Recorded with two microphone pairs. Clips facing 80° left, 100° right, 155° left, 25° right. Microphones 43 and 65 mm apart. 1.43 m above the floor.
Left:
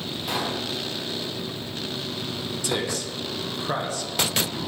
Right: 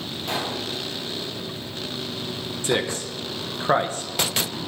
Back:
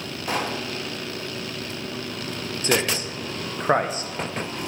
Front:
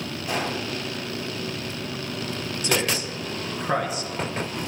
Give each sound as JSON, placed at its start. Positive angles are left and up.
{"t": 0.3, "sound": "a pop", "azimuth_deg": 170, "distance_m": 3.0}
{"t": 2.6, "sound": "a man speaking", "azimuth_deg": -150, "distance_m": 1.3}